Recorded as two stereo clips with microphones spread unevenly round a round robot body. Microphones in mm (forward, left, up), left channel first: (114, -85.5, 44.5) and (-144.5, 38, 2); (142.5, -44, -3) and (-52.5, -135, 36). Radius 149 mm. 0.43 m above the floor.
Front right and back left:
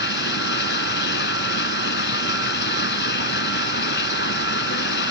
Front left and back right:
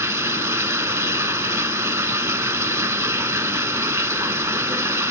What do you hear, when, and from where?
0.0 s running water: 80° right